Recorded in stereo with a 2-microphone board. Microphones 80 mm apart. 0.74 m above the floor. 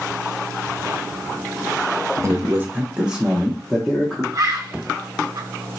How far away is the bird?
About 0.8 m.